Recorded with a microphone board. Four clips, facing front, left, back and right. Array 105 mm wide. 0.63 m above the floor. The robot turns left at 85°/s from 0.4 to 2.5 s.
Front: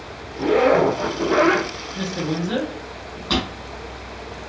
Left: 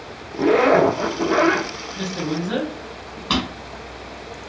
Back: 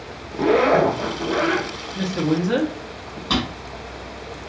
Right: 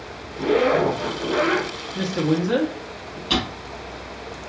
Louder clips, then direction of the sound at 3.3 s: Left 1 dB, even; 95° left.